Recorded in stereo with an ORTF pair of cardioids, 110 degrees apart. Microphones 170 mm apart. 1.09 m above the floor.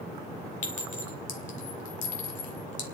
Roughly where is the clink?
Ahead left.